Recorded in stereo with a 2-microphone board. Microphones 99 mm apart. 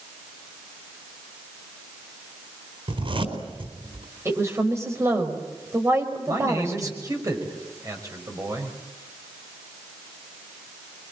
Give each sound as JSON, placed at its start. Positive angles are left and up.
{"t": 2.9, "sound": "a zipper", "side_deg": -65, "distance_m": 4.0}
{"t": 4.2, "sound": "a woman speaking", "side_deg": -30, "distance_m": 5.0}
{"t": 6.3, "sound": "a man speaking", "side_deg": -35, "distance_m": 6.0}